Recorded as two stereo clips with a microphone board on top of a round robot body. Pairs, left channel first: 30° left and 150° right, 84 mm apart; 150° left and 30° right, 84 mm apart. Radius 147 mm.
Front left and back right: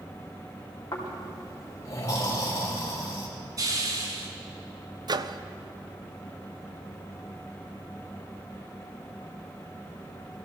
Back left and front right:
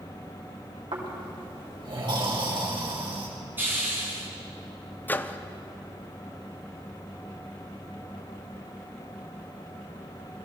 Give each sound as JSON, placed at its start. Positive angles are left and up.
{"t": 0.9, "sound": "snoring", "azimuth_deg": -20, "distance_m": 3.5}
{"t": 3.6, "sound": "a hiss", "azimuth_deg": -100, "distance_m": 2.5}
{"t": 5.1, "sound": "a microwave", "azimuth_deg": -145, "distance_m": 0.7}